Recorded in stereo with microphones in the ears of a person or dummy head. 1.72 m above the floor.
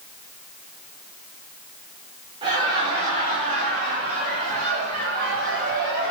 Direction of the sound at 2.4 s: 30° right (ahead or behind).